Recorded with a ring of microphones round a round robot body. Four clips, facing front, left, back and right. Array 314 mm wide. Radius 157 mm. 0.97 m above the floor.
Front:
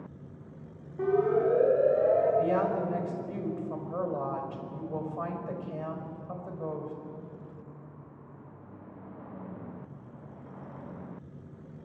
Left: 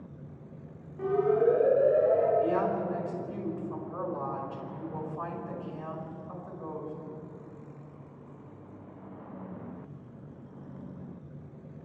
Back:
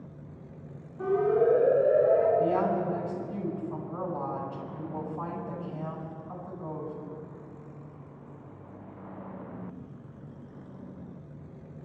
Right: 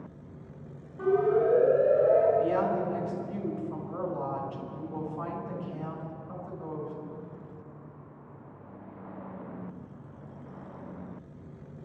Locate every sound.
1.0 s a siren: 15° left, 7.5 m; by 2.3 s 20° left, 8 m
2.4 s a woman speaking: 5° left, 5 m